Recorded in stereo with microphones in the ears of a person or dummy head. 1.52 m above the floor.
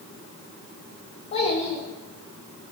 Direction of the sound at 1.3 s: 35° left (ahead or behind).